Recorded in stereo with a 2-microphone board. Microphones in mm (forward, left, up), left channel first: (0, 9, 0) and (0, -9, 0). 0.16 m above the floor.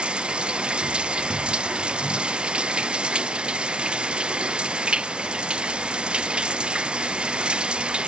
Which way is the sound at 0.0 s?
80° right.